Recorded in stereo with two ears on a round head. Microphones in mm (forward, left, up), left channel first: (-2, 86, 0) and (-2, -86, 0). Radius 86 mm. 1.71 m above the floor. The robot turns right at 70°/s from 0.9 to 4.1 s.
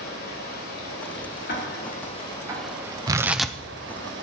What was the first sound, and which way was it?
Running water, 60° left.